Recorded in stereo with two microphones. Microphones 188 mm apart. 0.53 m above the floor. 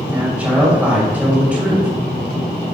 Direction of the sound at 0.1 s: 10° right (ahead or behind).